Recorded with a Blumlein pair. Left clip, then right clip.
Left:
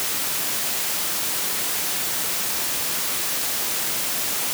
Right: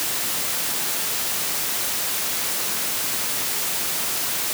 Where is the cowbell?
I don't hear a cowbell.